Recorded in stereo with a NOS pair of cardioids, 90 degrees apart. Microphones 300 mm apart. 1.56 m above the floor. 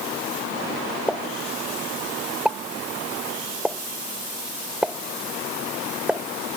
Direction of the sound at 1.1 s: 5° right.